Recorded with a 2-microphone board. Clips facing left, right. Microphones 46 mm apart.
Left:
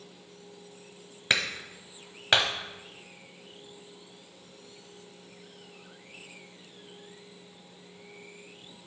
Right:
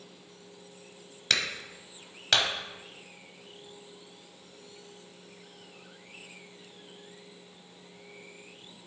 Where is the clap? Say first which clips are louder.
Left 2 dB; 20° left (ahead or behind), 1.0 m.